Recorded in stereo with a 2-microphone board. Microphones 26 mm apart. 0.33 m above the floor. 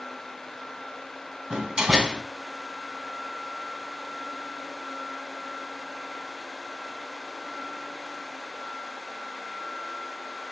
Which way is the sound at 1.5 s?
25° right (ahead or behind).